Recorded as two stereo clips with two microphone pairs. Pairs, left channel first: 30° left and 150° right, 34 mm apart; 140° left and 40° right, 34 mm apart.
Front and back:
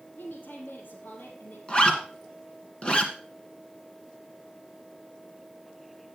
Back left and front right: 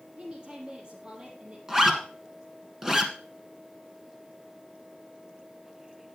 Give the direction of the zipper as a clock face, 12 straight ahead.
11 o'clock.